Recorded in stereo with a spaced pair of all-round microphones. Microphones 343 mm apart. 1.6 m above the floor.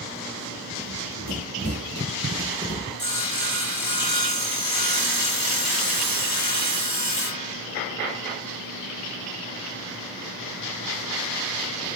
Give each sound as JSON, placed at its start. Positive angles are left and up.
{"t": 0.8, "sound": "running footsteps", "side_deg": -30, "distance_m": 2.5}
{"t": 3.0, "sound": "sawing", "side_deg": 55, "distance_m": 1.8}